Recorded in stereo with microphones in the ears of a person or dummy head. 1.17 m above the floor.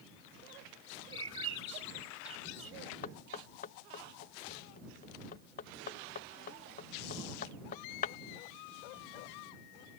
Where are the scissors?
No scissors in this recording.